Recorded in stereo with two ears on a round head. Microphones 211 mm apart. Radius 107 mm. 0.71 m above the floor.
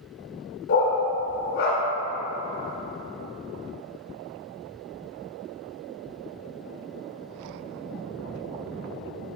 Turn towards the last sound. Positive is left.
turn(degrees=55)  # may be behind; listen again after turning